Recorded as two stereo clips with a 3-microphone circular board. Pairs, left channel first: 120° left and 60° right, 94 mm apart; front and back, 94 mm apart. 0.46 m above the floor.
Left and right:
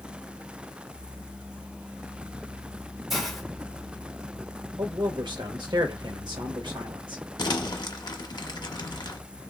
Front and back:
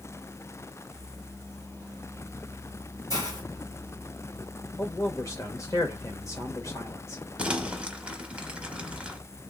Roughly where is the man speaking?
Ahead right.